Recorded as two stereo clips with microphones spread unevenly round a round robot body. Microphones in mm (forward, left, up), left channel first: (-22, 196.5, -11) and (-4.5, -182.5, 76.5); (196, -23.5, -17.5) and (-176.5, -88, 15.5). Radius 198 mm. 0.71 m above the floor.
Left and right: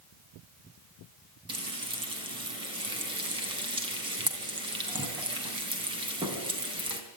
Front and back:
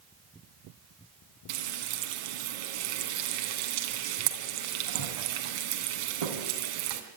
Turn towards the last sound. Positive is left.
turn(degrees=-165)